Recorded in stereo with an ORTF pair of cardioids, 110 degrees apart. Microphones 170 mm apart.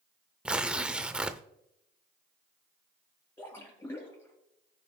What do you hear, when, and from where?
0.5 s tearing paper: 5° right, 0.6 m
3.4 s a splash: 15° left, 4 m